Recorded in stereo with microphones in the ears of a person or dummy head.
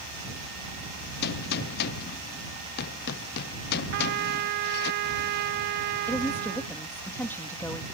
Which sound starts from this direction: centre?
A woman speaking, at 6.1 s.